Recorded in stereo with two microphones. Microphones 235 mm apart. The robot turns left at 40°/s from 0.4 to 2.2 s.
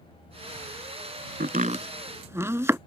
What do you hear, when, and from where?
1.4 s chopping: 45° right (ahead or behind); by 2.8 s 10° right (ahead or behind)